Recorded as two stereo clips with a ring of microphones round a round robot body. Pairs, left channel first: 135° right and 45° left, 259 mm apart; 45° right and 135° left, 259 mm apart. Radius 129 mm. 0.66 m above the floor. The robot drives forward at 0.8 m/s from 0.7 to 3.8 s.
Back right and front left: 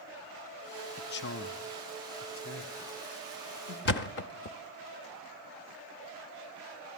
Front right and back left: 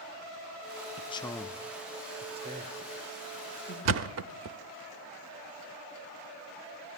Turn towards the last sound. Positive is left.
turn(degrees=175)